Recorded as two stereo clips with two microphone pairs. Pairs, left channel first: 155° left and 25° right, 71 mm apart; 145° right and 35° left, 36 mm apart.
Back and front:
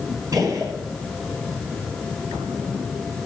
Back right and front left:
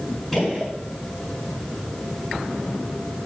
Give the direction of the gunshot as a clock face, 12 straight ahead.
2 o'clock.